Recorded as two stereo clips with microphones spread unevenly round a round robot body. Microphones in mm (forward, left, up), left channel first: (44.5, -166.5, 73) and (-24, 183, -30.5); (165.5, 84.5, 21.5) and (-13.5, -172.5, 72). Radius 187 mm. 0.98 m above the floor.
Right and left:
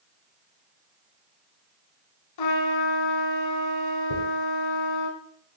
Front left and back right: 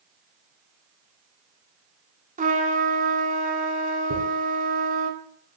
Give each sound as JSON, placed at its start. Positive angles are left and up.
{"t": 2.4, "sound": "a trumpet", "azimuth_deg": -60, "distance_m": 2.5}
{"t": 4.1, "sound": "a dropped coin", "azimuth_deg": -70, "distance_m": 6.5}